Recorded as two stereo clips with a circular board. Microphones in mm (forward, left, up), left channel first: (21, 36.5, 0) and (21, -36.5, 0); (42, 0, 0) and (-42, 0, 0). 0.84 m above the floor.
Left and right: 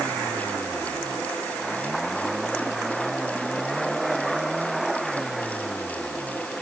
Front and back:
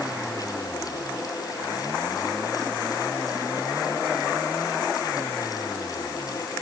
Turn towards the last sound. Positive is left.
No sound to turn to.